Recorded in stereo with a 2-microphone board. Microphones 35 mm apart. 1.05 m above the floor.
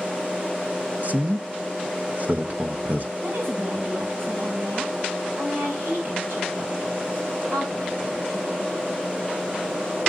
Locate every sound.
1.0 s a man speaking: 45° right (ahead or behind), 1.1 m
3.2 s a woman speaking: 80° right, 6 m